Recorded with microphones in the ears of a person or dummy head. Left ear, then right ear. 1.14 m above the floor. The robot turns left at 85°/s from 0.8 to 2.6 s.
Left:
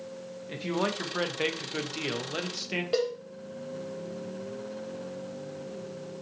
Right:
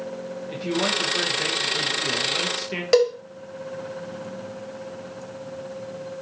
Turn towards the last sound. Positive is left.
turn(degrees=-50)  # may be behind; listen again after turning